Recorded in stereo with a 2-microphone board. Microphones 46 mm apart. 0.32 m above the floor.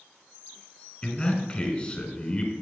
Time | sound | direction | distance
1.0 | a man speaking | 25° left (ahead or behind) | 1.5 m